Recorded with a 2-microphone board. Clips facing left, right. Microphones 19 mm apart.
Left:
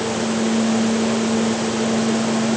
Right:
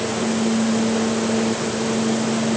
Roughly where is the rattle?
I don't hear a rattle.